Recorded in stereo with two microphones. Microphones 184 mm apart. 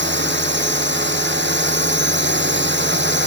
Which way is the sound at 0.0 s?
80° right.